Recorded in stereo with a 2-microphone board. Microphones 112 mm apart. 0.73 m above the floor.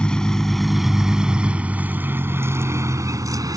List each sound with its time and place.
0.0 s a vehicle: 10° left (ahead or behind); by 3.6 s 35° right (ahead or behind)